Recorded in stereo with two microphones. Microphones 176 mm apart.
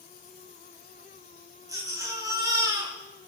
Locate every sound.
1.7 s a baby crying: 20° right (ahead or behind), 4 m